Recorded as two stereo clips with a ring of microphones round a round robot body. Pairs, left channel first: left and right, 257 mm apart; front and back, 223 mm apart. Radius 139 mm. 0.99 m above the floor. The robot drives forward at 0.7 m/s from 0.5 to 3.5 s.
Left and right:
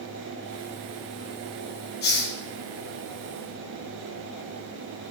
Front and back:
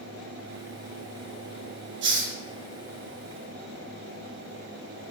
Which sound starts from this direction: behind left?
A hiss, at 2.0 s.